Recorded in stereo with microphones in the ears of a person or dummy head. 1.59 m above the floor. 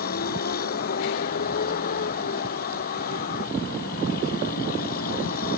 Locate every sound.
0.0 s a vehicle: 55° left (ahead or behind)